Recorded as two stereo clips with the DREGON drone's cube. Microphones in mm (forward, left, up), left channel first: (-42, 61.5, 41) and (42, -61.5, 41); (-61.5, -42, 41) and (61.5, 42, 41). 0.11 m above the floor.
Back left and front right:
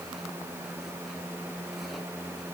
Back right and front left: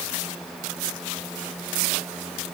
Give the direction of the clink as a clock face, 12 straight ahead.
I don't hear a clink.